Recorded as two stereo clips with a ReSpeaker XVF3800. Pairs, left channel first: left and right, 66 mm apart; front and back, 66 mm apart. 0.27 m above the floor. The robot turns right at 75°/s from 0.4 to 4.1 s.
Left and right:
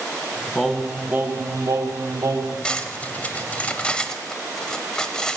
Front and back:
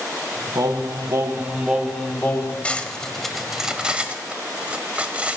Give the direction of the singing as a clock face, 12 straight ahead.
6 o'clock.